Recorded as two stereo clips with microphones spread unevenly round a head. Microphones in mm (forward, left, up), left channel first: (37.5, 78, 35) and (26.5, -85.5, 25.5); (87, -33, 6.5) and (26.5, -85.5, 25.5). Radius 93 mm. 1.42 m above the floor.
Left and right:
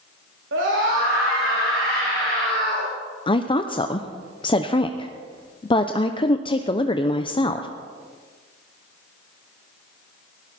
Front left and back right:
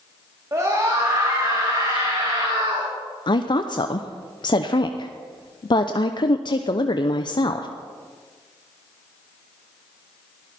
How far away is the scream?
About 3 m.